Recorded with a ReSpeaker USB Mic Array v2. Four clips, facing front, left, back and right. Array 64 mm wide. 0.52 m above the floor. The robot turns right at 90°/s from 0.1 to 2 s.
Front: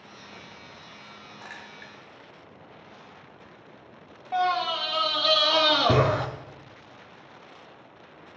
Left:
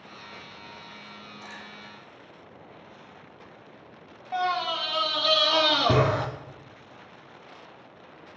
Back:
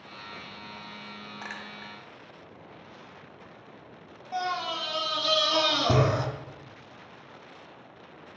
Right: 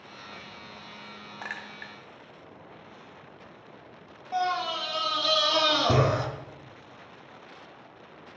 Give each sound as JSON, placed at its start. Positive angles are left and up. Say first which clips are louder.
{"t": 1.4, "sound": "a clink", "louder": "right 8 dB, back 2 dB", "azimuth_deg": -115, "distance_m": 0.8}
{"t": 4.3, "sound": "a scream", "louder": "left 1 dB, front 6 dB", "azimuth_deg": 25, "distance_m": 1.2}